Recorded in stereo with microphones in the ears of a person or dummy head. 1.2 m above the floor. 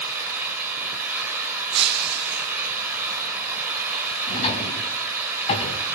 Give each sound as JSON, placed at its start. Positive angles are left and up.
{"t": 0.0, "sound": "an engine running", "side_deg": -5, "distance_m": 4.5}
{"t": 1.7, "sound": "breaking glass", "side_deg": -55, "distance_m": 2.5}
{"t": 4.3, "sound": "a drawer", "side_deg": 40, "distance_m": 3.5}